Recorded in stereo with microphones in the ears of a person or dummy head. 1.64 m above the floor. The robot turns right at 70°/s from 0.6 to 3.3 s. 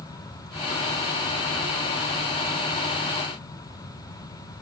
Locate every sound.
Only background noise.